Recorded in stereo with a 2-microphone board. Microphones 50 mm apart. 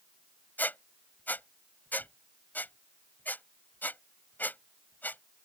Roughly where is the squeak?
Left.